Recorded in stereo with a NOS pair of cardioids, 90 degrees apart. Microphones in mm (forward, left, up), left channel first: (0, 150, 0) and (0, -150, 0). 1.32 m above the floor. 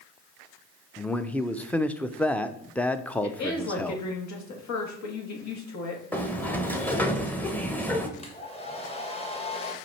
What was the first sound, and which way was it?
A man speaking, 5° left.